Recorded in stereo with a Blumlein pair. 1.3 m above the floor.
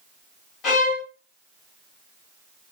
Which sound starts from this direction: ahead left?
A violin, at 0.6 s.